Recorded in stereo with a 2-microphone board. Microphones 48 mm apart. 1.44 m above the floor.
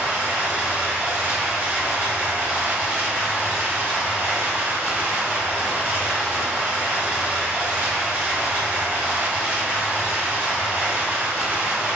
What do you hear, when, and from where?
0.0 s running water: 35° right (ahead or behind), 1.6 m